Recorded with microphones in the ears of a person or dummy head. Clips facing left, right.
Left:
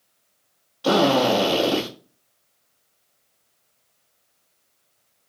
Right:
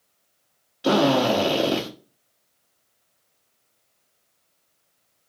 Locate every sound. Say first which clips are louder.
0.8 s a drill: left 1 dB; 20° right (ahead or behind), 1.1 m